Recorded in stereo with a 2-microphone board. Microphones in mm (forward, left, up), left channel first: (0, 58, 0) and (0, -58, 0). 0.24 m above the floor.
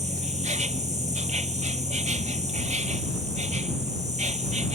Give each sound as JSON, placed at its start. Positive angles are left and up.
{"t": 0.0, "sound": "an insect", "side_deg": -80}